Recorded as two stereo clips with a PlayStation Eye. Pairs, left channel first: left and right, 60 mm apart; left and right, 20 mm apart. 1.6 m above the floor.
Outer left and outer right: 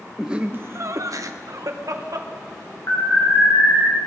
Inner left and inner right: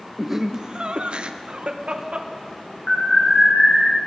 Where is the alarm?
50° left (ahead or behind), 5 m.